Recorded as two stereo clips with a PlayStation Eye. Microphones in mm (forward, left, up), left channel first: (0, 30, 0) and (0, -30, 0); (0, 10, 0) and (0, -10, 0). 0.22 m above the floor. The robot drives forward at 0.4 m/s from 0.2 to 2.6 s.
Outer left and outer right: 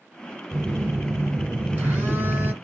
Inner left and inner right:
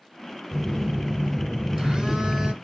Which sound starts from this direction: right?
A phone buzzing, at 0.5 s.